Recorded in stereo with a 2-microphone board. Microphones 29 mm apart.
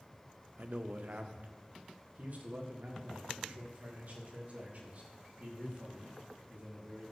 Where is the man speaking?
55° right (ahead or behind), 0.7 m; by 7.1 s 60° right (ahead or behind), 4 m.